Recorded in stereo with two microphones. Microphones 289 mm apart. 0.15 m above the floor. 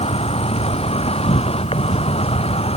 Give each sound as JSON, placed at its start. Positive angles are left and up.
{"t": 0.0, "sound": "an insect", "side_deg": 20}